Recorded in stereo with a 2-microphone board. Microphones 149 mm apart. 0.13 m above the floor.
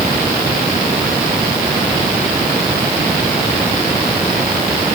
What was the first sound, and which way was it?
Only background noise.